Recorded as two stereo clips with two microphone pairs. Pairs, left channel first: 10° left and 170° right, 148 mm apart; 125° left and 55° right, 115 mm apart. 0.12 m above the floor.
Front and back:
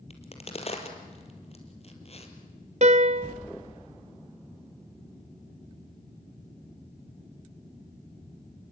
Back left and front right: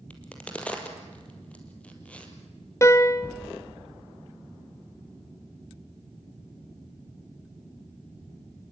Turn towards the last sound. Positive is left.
turn(degrees=-175)